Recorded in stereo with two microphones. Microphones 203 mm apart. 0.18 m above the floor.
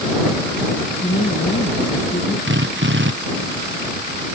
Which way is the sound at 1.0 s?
45° left (ahead or behind).